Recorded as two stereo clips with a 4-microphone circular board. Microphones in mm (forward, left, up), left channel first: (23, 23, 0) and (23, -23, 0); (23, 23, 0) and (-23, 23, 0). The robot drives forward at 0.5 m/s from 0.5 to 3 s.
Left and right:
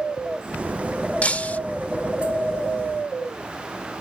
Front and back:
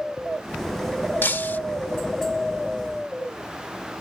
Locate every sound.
1.2 s breaking glass: 35° left; by 1.6 s 40° left